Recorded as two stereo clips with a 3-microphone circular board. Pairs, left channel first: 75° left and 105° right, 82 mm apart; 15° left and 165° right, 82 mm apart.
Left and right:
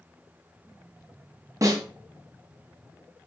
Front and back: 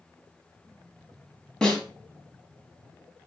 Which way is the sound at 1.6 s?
65° right.